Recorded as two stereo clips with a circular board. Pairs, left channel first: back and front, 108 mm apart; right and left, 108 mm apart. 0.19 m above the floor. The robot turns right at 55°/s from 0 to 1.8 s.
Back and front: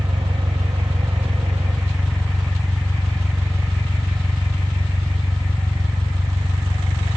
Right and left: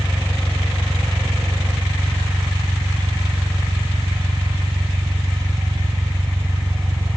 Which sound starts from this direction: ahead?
An engine running, at 0.0 s.